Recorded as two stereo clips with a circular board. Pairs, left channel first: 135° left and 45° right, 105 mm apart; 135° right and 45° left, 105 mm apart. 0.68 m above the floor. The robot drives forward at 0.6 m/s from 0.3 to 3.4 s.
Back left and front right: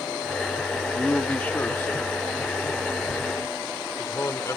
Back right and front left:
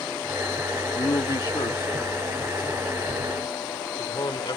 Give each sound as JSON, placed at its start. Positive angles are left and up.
{"t": 0.9, "sound": "a man speaking", "azimuth_deg": -150}